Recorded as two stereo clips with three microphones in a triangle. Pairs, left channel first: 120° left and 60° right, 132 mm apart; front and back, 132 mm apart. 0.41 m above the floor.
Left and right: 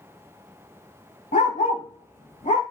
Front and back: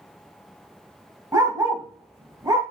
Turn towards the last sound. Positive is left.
turn(degrees=115)